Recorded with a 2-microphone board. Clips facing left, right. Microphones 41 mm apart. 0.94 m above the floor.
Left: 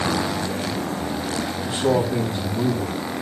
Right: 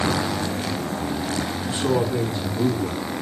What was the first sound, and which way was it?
A man speaking, 70° left (ahead or behind).